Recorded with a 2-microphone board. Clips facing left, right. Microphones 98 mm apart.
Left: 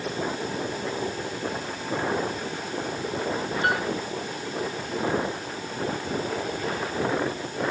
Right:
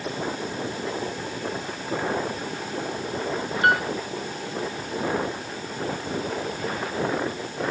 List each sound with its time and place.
3.6 s a piano: 65° right (ahead or behind), 2.5 m